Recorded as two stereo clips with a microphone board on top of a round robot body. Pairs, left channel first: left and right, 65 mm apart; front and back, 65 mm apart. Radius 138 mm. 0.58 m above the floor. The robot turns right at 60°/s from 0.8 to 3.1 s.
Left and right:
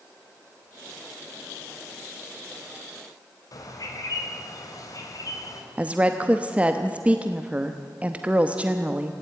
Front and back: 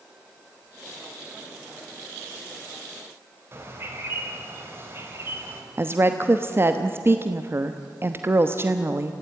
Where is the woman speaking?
150° right, 1.2 m.